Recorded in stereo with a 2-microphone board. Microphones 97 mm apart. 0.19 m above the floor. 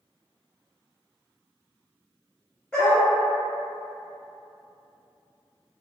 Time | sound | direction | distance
2.7 | a dog barking | 10° left (ahead or behind) | 1.4 m